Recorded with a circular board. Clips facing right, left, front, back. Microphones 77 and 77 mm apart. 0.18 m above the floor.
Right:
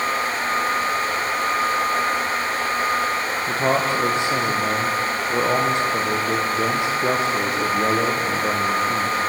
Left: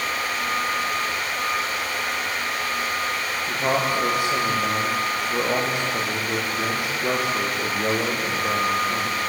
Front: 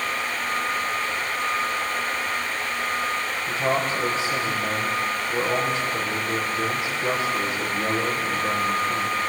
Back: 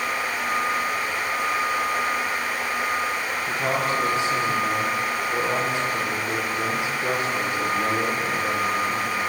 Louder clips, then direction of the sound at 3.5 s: Right 2 dB, front 1 dB; 90° right.